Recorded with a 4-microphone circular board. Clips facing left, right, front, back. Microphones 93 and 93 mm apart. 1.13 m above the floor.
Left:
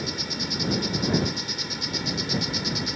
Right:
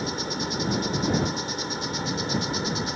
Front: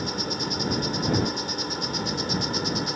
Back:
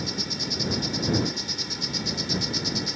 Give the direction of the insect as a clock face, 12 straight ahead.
1 o'clock.